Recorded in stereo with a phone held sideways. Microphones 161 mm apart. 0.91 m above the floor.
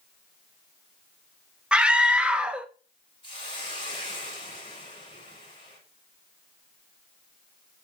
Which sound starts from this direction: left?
A hiss, at 3.2 s.